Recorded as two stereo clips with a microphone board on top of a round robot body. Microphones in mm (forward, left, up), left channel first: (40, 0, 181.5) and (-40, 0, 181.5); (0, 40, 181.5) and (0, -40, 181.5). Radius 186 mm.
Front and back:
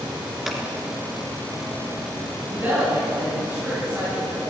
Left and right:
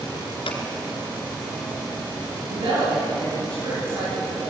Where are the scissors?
95° left, 2.5 m.